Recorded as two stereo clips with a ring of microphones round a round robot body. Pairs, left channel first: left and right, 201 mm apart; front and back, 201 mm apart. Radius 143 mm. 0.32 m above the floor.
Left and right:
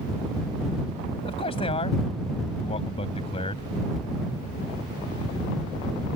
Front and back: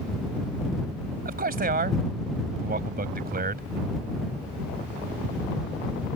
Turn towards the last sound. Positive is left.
turn(degrees=155)